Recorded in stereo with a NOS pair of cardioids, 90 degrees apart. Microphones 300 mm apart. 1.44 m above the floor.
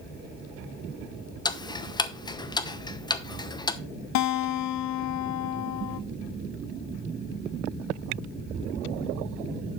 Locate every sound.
1.4 s ticking: 15° left, 0.8 m
4.2 s a guitar: 65° left, 0.6 m